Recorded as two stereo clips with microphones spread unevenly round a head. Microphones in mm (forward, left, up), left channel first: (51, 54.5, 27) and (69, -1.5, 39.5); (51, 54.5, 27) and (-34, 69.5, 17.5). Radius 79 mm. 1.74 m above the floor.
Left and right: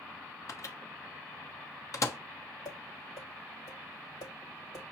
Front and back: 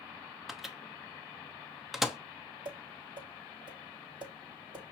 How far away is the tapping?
About 4.5 m.